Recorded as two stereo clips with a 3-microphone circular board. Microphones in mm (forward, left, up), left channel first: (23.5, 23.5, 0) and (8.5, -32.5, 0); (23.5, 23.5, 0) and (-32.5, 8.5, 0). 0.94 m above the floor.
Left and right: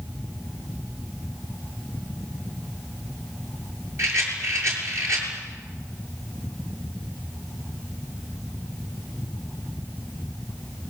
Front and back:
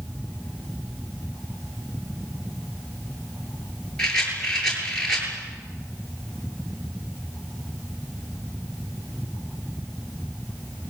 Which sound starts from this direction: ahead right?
A rattle, at 4.0 s.